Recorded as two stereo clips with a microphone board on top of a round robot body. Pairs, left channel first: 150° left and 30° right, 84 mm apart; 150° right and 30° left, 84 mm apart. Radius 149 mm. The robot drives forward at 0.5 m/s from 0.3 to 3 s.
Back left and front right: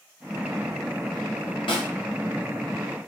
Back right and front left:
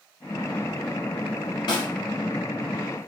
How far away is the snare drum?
About 1.7 m.